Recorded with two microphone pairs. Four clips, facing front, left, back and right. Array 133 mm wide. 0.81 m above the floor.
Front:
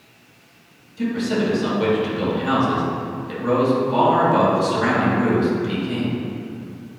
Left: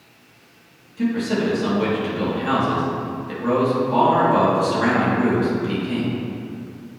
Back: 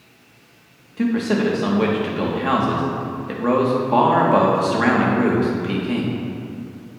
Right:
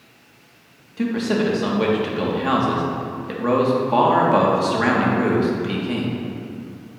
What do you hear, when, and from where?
1.0 s a man speaking: 145° right, 1.8 m